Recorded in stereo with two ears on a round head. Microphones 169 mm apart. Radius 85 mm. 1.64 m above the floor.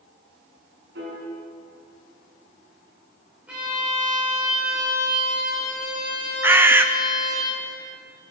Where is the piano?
70° right (ahead or behind), 5.5 m.